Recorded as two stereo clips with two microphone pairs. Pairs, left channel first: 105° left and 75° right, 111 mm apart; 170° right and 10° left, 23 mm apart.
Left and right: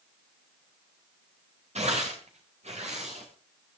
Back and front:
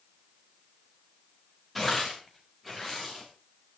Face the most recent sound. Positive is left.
turn(degrees=-85)